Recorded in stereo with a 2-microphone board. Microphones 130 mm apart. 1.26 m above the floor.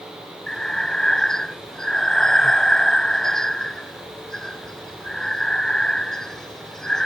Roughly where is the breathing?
Centre.